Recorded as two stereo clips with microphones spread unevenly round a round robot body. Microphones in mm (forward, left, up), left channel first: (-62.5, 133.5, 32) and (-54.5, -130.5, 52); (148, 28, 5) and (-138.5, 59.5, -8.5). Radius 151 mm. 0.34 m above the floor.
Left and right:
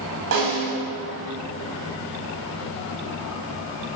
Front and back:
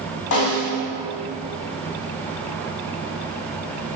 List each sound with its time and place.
0.3 s a snare drum: 45° right, 3 m